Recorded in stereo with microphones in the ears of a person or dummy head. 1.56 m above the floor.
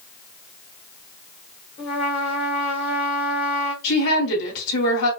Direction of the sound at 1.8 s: 20° left (ahead or behind).